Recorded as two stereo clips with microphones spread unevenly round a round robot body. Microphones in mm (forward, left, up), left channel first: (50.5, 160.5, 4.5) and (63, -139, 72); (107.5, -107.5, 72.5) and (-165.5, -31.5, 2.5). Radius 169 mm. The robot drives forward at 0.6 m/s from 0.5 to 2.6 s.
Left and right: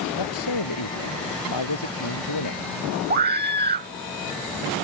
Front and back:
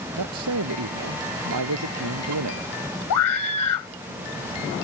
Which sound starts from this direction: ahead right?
A scream, at 3.1 s.